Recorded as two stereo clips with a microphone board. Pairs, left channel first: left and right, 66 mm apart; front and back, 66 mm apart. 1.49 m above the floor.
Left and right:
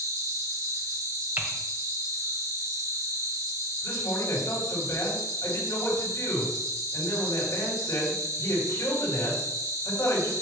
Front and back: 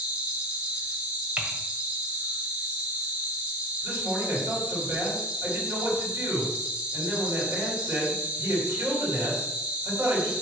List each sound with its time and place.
0.0 s an insect: 110° right, 1.6 m
1.4 s typing on a keyboard: 125° right, 1.5 m
3.8 s a man speaking: 125° left, 4.5 m